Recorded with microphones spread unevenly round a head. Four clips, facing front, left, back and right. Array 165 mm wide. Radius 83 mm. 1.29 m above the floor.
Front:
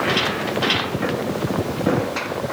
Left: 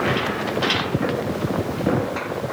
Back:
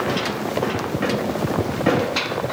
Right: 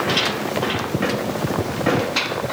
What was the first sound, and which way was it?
Only background noise.